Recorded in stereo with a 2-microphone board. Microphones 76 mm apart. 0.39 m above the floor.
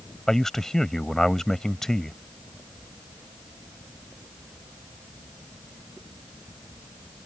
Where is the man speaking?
5° left (ahead or behind).